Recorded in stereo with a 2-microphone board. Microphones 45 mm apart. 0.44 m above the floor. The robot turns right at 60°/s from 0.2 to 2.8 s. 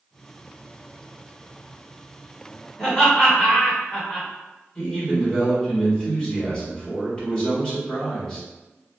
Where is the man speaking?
15° left (ahead or behind), 1.5 m.